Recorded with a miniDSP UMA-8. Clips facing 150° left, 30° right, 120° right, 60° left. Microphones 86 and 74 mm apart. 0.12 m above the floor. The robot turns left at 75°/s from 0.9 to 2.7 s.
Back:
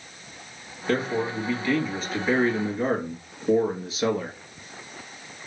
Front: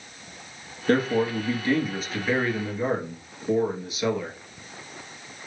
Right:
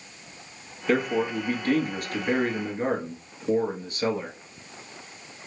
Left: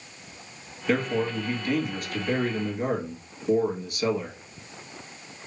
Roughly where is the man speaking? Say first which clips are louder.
Front 3 dB, right 1 dB; ahead right.